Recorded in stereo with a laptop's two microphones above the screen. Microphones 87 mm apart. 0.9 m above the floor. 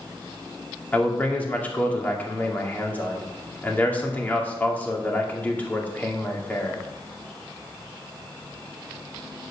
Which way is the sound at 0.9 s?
15° left (ahead or behind).